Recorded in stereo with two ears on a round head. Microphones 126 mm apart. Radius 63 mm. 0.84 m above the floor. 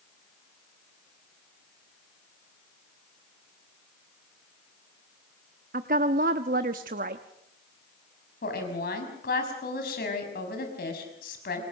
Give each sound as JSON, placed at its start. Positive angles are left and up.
{"t": 5.7, "sound": "a woman speaking", "side_deg": -65, "distance_m": 0.9}
{"t": 8.4, "sound": "a woman speaking", "side_deg": 75, "distance_m": 6.0}